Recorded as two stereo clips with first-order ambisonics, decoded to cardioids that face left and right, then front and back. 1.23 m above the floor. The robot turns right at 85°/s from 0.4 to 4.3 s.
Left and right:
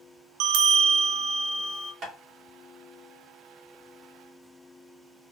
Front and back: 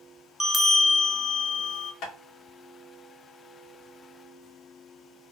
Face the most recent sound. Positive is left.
turn(degrees=150)